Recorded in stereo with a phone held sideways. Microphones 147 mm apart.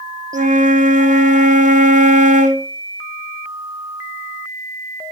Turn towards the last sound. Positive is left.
turn(degrees=-60)  # may be behind; listen again after turning